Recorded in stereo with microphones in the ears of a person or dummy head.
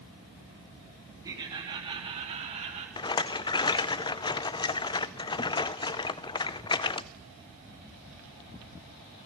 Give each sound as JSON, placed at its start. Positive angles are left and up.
{"t": 1.2, "sound": "laughter", "side_deg": -20, "distance_m": 3.0}
{"t": 3.0, "sound": "a rattle", "side_deg": 20, "distance_m": 0.6}